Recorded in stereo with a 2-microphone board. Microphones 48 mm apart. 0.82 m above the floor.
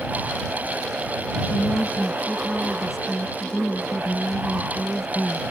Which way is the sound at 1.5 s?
Centre (ahead or behind).